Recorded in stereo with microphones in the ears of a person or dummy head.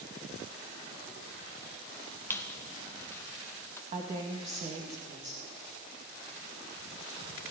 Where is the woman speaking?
35° right (ahead or behind), 2.5 m.